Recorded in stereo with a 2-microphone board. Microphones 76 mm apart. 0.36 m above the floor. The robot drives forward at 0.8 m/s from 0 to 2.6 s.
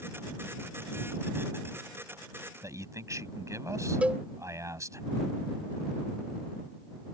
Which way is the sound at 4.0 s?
15° right (ahead or behind).